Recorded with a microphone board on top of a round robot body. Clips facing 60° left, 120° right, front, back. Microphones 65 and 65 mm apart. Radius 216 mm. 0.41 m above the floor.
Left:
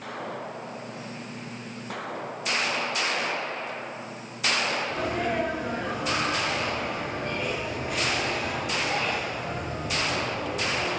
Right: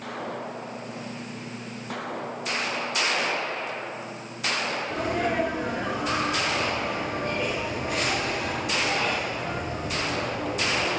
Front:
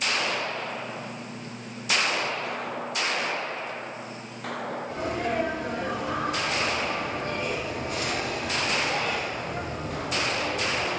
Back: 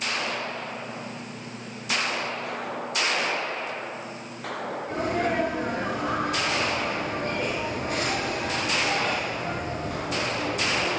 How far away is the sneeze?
About 7 m.